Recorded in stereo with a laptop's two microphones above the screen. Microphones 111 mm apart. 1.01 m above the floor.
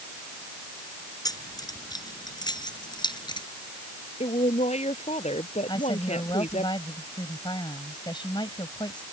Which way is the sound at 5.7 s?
45° left (ahead or behind).